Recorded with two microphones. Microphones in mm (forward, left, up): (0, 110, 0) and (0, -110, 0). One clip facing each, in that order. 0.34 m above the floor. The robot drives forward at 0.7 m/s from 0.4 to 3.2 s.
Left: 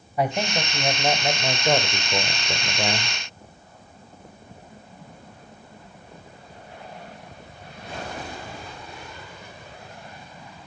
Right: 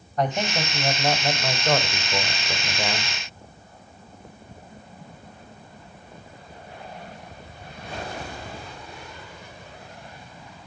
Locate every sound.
0.2 s a man speaking: 10° left (ahead or behind), 1.9 m; by 3.1 s 15° left (ahead or behind), 1.3 m